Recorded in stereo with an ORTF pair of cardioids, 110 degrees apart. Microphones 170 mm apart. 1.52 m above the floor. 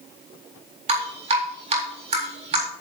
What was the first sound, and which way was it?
Dripping, 40° right.